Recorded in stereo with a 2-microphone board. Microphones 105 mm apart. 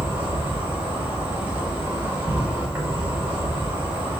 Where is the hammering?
I don't hear hammering.